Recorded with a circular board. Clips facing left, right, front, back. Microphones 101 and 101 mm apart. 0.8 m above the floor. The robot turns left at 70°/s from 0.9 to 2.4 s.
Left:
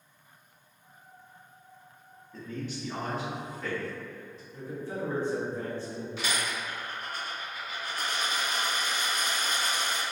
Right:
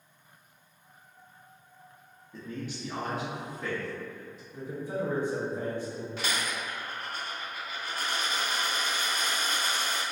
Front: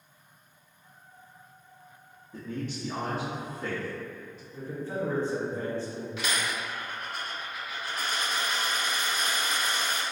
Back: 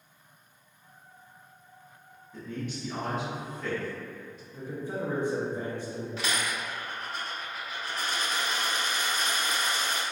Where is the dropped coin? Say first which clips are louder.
Even, front 1 dB; 130° right, 1.8 m.